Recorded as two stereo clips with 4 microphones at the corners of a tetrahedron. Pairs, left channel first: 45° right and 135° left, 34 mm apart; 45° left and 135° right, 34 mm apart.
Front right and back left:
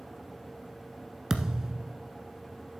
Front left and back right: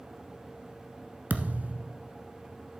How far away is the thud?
About 1.1 m.